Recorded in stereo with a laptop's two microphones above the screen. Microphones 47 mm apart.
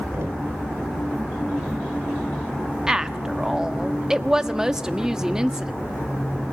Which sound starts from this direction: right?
Knocking, at 0.1 s.